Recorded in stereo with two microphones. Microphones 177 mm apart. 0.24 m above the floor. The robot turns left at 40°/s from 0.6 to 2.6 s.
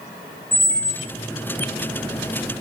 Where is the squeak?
45° right (ahead or behind), 0.6 m; by 1.1 s 25° right (ahead or behind), 0.6 m.